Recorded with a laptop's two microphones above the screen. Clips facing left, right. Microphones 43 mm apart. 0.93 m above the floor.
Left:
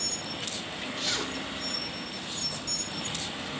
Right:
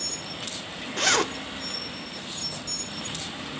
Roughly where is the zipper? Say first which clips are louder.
Right 10 dB; right.